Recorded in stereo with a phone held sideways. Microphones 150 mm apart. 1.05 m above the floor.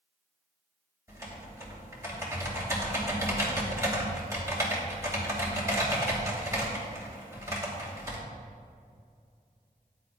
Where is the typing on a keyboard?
20° right (ahead or behind), 2.5 m.